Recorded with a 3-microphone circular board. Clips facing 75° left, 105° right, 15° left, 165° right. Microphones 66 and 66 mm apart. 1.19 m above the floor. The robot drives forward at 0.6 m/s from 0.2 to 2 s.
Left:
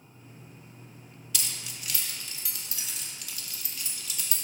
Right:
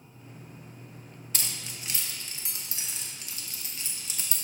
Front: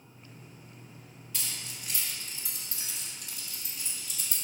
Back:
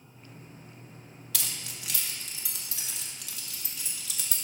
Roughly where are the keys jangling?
Behind right.